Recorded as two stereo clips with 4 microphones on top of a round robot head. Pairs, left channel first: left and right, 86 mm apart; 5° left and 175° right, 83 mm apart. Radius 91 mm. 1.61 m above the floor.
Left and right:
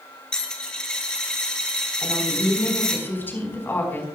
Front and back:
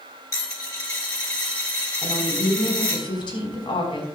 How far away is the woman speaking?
About 4.5 m.